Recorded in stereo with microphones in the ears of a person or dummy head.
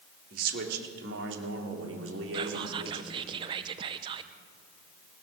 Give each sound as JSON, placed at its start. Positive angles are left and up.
{"t": 0.3, "sound": "a man speaking", "side_deg": -60, "distance_m": 4.0}
{"t": 2.3, "sound": "whispering", "side_deg": -35, "distance_m": 0.5}